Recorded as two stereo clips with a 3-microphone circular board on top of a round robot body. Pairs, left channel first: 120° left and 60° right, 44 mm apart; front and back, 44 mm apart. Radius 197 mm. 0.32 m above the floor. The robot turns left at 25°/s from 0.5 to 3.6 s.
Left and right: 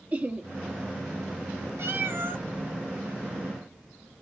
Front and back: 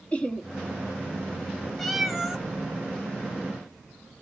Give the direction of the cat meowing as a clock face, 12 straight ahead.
3 o'clock.